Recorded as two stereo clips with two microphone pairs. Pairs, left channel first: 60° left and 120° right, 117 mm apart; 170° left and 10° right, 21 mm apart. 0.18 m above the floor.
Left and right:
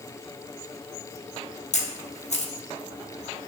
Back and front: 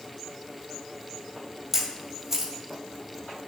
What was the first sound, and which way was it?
A camera shutter, 60° left.